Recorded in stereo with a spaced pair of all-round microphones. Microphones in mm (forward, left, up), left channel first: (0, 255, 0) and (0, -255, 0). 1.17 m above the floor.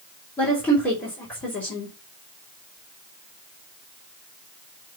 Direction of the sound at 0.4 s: 5° left (ahead or behind).